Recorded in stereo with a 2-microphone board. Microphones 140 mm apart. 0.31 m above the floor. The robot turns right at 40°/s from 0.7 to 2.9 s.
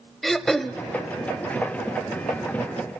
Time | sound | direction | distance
0.2 | throat clearing | centre (ahead or behind) | 0.6 m